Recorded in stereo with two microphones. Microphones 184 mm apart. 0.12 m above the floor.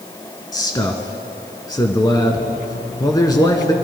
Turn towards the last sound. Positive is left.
turn(degrees=20)  # may be behind; listen again after turning